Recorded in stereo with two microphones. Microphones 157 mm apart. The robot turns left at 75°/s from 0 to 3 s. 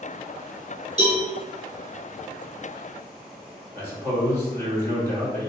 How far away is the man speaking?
About 1.1 m.